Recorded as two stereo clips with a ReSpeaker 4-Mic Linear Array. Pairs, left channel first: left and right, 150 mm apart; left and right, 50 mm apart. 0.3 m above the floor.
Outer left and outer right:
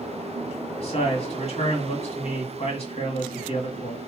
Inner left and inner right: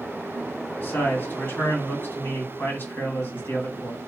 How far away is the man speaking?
About 1.8 m.